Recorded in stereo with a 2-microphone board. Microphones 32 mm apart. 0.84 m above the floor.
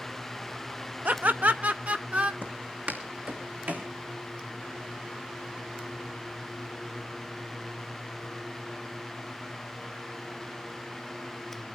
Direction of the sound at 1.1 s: 60° right (ahead or behind).